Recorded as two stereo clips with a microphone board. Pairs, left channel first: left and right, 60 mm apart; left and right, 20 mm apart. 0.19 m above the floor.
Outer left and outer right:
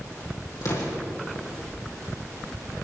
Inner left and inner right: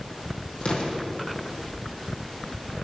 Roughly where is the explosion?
Left.